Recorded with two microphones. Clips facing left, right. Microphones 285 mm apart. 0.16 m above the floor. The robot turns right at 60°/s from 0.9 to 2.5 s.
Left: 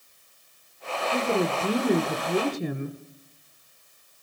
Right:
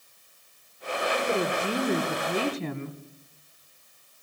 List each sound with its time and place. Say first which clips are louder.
1.1 s a woman speaking: left 3 dB; 15° left (ahead or behind), 1.3 m